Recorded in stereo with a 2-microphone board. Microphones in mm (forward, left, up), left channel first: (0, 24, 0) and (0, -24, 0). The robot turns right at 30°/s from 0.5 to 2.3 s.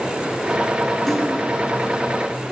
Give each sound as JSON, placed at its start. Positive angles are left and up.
{"t": 1.1, "sound": "a splash", "side_deg": 5, "distance_m": 5.0}